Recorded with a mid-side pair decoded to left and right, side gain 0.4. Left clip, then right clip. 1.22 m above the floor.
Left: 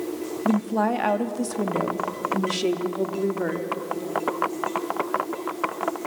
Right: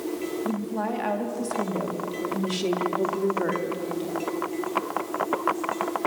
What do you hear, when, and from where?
0.5 s a woman speaking: 60° left, 1.9 m; by 3.7 s 15° left, 3 m